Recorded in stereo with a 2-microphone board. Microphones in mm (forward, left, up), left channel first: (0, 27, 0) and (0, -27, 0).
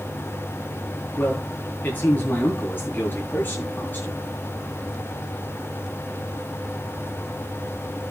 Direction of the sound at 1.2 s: 35° left (ahead or behind).